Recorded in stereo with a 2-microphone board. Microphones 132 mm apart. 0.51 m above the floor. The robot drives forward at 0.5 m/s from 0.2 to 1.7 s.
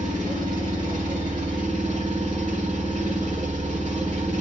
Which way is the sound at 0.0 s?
75° right (ahead or behind).